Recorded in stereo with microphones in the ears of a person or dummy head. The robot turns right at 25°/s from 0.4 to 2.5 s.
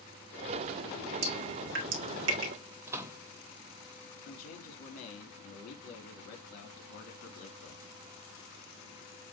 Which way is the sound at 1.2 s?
50° right (ahead or behind).